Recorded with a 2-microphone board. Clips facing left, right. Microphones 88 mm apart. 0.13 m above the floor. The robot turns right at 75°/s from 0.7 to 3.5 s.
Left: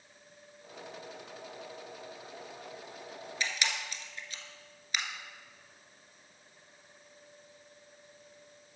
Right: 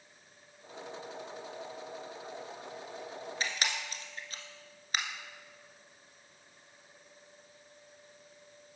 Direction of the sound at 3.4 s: 35° right (ahead or behind).